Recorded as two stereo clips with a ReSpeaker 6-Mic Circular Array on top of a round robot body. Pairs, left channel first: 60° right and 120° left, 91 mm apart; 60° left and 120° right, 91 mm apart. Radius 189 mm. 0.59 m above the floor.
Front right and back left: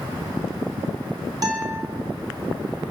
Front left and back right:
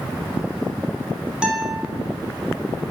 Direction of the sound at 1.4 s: 160° left.